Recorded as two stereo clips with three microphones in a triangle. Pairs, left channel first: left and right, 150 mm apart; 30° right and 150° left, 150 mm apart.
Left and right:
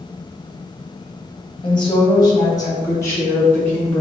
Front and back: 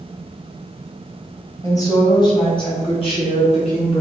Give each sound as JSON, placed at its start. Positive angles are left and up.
{"t": 1.6, "sound": "a woman speaking", "azimuth_deg": 35, "distance_m": 3.0}